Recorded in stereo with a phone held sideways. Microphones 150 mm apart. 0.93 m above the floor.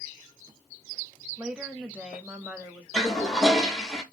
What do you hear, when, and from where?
1.4 s a woman speaking: 5° right (ahead or behind), 0.6 m
2.9 s a toilet flushing: centre (ahead or behind), 0.7 m